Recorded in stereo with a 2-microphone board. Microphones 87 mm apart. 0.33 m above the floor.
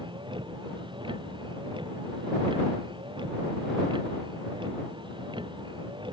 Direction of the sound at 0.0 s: 70° right (ahead or behind).